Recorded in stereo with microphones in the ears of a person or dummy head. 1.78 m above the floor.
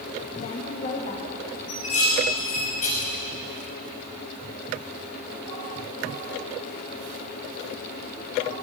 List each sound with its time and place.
0.4 s a woman speaking: 40° left (ahead or behind), 3.5 m; by 1.6 s 45° left (ahead or behind), 4 m
1.7 s dishes clattering: 45° left (ahead or behind), 6.5 m